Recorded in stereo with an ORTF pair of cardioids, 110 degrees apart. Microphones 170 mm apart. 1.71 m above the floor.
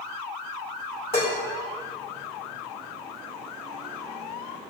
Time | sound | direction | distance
1.1 | dishes clattering | 40° left | 3 m